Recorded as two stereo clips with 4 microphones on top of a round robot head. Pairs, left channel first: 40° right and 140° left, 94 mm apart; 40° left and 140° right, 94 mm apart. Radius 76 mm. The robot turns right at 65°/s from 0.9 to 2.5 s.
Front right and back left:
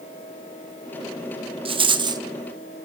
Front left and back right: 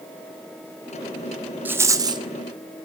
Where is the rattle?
150° left, 1.8 m; by 2.2 s 175° right, 1.8 m.